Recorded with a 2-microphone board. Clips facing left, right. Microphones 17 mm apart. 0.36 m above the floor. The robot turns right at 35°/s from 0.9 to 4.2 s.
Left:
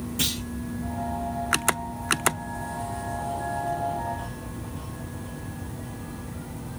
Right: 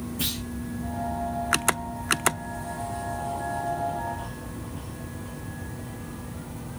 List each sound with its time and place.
0.2 s a clunk: 85° left, 7 m